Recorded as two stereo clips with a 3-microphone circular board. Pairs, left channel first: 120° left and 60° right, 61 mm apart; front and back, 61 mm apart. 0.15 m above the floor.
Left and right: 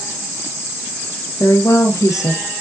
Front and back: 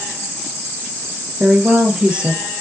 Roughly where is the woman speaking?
Left.